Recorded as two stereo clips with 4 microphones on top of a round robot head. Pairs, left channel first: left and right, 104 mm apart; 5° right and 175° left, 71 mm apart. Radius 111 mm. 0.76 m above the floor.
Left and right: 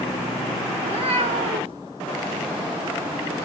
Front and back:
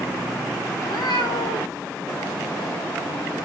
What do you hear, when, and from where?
0.8 s a cat meowing: 50° right, 1.3 m